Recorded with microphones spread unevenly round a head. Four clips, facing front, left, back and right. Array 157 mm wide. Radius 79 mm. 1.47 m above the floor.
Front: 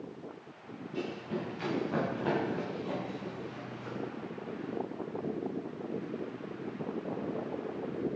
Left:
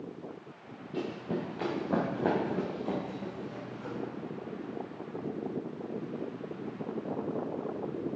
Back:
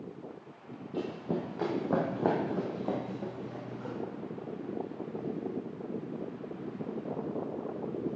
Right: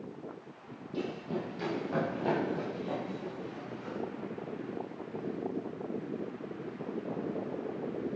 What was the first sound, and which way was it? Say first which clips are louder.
Running footsteps: left 1 dB, back 3 dB; 170° left.